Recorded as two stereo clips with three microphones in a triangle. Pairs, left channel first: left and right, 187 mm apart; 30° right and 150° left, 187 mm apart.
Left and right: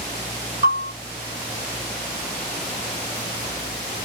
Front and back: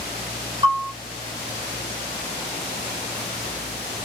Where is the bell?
85° left, 2.5 m.